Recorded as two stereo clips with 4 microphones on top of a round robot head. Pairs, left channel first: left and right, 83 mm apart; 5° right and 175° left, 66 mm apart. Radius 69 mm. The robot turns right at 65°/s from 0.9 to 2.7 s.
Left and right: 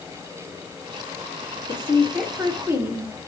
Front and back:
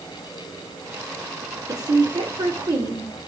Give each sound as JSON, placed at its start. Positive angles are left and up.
{"t": 1.7, "sound": "a woman speaking", "azimuth_deg": 145, "distance_m": 2.5}